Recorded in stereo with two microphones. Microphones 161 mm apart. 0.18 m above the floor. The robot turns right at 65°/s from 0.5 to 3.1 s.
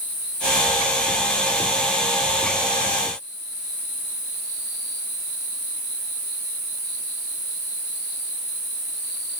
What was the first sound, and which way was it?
Only background noise.